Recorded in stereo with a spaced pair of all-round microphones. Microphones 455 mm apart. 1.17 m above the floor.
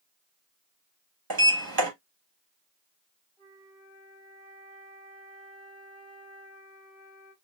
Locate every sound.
1.3 s a sliding door: 50° right (ahead or behind), 1.0 m
3.4 s a flute: 65° left (ahead or behind), 2 m